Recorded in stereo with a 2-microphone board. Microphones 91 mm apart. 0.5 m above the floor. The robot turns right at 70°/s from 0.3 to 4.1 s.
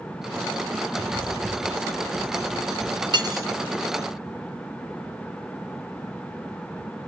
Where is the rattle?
55° right, 1.3 m; by 3.0 s 95° left, 1.3 m.